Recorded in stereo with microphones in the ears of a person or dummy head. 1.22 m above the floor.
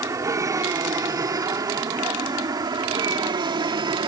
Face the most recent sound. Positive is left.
turn(degrees=-20)  # may be behind; listen again after turning